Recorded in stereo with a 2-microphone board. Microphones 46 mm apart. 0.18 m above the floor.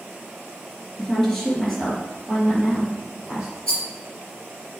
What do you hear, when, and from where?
1.0 s a woman speaking: 10° left (ahead or behind), 2.5 m; by 3.5 s 5° right (ahead or behind), 4.5 m
3.7 s a rattle: 20° left (ahead or behind), 3 m